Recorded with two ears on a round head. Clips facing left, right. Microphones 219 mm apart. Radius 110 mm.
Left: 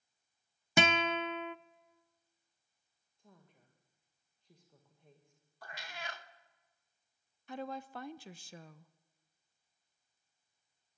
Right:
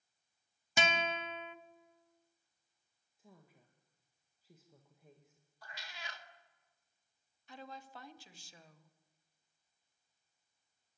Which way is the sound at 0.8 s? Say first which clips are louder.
Left 5 dB; 50° left (ahead or behind).